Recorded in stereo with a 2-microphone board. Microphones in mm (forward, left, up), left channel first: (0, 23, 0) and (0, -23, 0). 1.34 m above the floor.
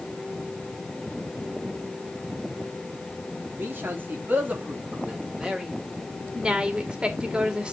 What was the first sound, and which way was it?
A man speaking, 50° right (ahead or behind).